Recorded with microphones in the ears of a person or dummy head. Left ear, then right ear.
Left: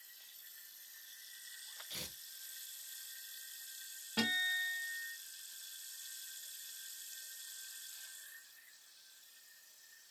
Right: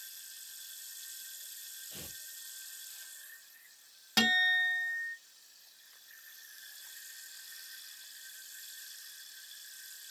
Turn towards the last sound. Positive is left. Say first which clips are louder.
# right 8 dB
turn(degrees=-60)  # may be behind; listen again after turning